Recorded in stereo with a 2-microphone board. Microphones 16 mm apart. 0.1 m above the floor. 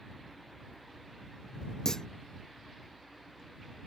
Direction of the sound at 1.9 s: 40° left (ahead or behind).